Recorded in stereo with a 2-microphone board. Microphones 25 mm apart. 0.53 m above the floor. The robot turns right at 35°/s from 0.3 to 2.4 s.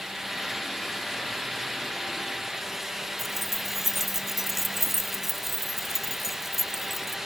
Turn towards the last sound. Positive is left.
turn(degrees=-5)  # may be behind; listen again after turning